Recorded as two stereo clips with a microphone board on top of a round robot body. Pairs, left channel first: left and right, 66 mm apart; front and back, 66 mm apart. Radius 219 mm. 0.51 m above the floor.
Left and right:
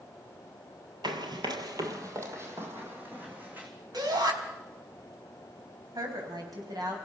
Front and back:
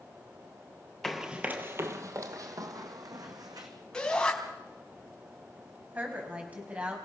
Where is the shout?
80° right, 4.5 m.